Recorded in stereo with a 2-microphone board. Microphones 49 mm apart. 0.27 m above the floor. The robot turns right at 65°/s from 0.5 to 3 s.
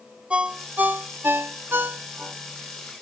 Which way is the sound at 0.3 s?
20° right (ahead or behind).